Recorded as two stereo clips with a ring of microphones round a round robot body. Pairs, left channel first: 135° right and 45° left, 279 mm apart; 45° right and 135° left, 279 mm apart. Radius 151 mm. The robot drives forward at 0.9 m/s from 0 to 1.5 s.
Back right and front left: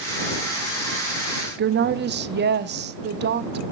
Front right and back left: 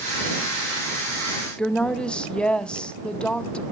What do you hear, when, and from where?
1.6 s a woman speaking: 40° left, 0.7 m